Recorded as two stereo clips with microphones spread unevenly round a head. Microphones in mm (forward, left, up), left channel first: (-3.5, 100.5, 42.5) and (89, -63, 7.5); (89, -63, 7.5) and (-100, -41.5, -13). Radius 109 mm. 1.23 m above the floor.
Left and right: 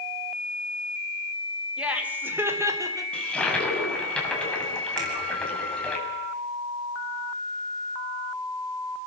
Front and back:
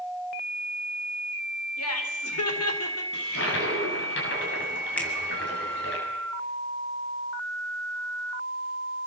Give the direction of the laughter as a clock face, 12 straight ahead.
11 o'clock.